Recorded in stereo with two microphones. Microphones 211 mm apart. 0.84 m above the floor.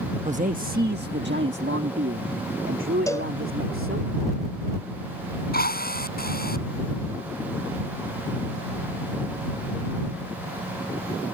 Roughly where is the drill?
Left.